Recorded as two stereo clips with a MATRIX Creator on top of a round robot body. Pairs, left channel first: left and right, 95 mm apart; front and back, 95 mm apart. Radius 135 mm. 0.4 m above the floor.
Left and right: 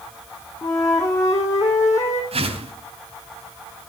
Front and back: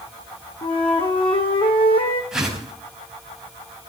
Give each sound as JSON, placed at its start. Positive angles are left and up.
{"t": 0.6, "sound": "a flute", "azimuth_deg": 30, "distance_m": 4.0}
{"t": 2.3, "sound": "a whoosh", "azimuth_deg": -95, "distance_m": 4.0}